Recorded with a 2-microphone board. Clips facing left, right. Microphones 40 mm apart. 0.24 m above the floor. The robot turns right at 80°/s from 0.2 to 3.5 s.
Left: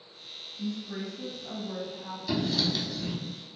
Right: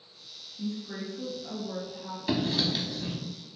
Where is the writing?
40° right (ahead or behind), 0.6 m; by 3.1 s 10° left (ahead or behind), 0.6 m.